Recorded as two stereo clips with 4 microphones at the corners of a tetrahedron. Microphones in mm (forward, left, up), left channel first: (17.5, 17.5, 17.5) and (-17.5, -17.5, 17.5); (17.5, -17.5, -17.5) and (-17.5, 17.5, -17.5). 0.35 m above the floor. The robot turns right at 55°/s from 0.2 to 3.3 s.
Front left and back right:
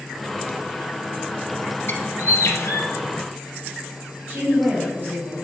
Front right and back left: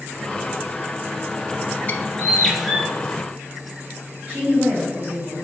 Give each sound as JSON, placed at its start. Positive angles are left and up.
{"t": 1.9, "sound": "a bird", "azimuth_deg": 10, "distance_m": 0.6}
{"t": 4.3, "sound": "a woman speaking", "azimuth_deg": -155, "distance_m": 1.6}